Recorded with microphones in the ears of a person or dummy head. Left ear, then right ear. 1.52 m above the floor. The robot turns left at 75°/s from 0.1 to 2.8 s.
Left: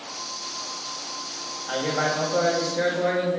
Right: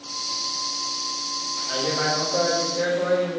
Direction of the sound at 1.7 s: 115° left.